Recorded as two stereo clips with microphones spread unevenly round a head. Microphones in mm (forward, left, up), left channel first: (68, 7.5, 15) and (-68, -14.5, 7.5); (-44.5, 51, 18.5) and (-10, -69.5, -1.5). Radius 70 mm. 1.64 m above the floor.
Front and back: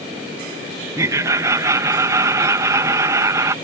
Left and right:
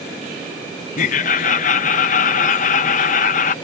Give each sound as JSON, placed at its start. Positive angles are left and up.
{"t": 1.0, "sound": "laughter", "azimuth_deg": 120}